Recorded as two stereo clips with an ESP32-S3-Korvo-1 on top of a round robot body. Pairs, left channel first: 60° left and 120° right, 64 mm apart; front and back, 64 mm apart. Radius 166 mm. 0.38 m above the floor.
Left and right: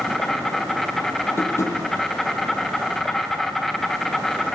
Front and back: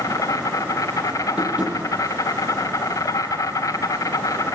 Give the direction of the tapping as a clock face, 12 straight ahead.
8 o'clock.